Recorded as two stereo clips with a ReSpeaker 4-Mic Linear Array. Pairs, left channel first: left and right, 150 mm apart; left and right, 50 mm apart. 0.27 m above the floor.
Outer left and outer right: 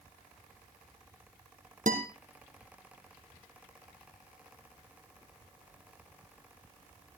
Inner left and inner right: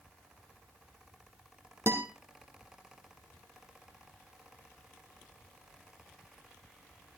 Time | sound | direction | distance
1.9 | a guitar | 60° right (ahead or behind) | 2.5 m